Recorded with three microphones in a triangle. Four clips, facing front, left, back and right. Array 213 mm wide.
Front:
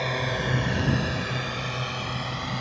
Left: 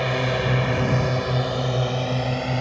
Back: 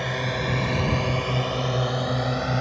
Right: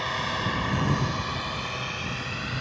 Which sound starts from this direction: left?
A drone, at 0.0 s.